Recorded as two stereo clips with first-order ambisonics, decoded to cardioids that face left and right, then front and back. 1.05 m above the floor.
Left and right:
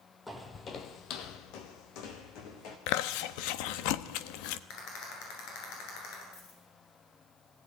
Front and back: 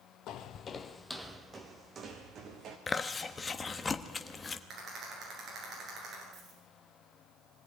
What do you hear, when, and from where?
0.3 s footsteps: 10° left, 1.4 m; by 2.8 s 125° left, 3.5 m
2.9 s chewing: 75° left, 1.0 m
4.7 s a rattle: 120° left, 10 m
6.3 s a dropped coin: 110° left, 7 m